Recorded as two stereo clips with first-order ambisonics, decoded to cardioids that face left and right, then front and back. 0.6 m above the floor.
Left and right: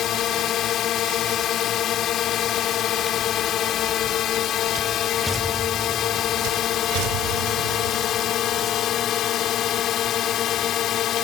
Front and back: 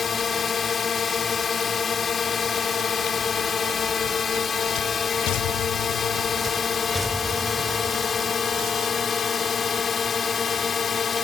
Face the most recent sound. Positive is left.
turn(degrees=55)